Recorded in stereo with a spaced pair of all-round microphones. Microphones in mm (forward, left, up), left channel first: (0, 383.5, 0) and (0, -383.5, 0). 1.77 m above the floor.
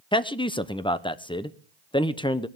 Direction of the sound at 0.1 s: 5° left (ahead or behind).